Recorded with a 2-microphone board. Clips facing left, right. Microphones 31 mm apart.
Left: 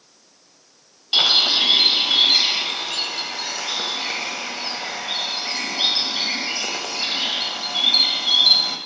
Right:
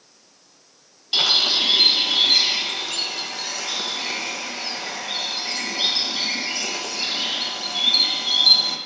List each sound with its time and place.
1.1 s a bird: 15° left (ahead or behind), 0.5 m